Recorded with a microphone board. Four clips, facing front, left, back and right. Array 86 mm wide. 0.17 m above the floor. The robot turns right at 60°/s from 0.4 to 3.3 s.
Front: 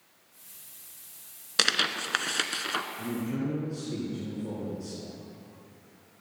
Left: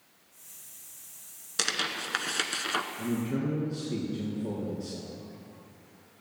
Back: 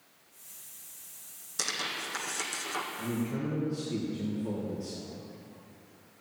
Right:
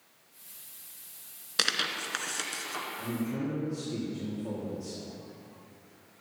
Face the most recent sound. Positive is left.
turn(degrees=75)